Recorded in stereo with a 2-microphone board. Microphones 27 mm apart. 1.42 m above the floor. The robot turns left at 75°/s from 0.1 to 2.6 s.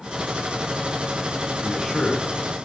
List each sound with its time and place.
1.6 s a man speaking: 170° right, 0.6 m; by 2.3 s 140° left, 0.6 m